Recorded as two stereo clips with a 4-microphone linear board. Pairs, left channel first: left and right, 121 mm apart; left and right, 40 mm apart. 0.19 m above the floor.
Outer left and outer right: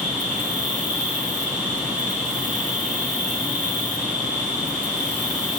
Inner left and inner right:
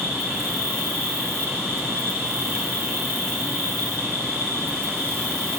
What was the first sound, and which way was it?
An insect, 80° right.